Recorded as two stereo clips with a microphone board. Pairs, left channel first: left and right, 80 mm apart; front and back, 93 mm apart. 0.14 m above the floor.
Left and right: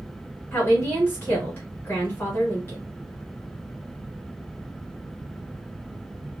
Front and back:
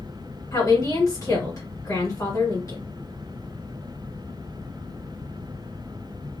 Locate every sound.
0.5 s a woman speaking: 40° left, 1.8 m